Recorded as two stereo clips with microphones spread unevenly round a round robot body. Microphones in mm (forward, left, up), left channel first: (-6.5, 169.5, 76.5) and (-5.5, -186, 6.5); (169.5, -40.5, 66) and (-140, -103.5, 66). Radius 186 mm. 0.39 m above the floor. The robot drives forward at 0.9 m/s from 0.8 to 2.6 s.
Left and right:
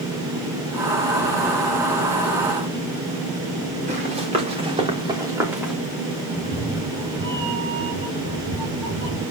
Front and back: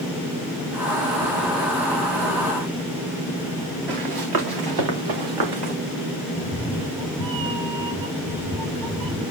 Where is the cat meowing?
165° right, 5 m.